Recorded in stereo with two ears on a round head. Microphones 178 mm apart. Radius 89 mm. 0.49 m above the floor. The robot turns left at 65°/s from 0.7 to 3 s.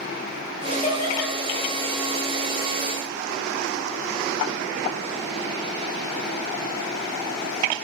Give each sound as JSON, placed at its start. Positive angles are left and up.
{"t": 0.7, "sound": "laughter", "side_deg": 40, "distance_m": 9.0}